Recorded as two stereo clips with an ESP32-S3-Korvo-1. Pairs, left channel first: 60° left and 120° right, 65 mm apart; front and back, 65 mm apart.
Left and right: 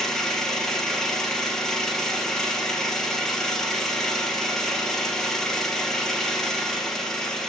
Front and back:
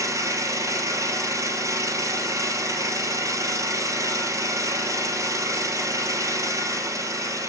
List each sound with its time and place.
0.0 s an engine running: 145° left, 2.5 m